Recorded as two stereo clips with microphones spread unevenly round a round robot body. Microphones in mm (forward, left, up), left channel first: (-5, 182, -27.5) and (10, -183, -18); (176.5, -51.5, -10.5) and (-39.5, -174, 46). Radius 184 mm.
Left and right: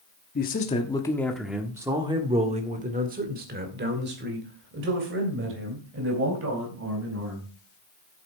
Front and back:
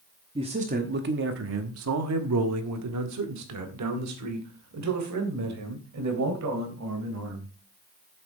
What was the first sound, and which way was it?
A man speaking, 130° left.